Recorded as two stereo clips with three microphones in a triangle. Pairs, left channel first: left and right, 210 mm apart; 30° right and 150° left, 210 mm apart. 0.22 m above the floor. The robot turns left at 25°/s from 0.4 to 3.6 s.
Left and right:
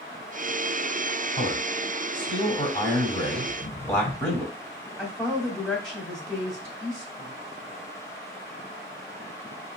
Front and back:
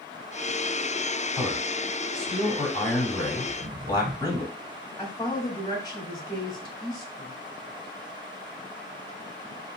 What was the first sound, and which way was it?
A man speaking, 70° left.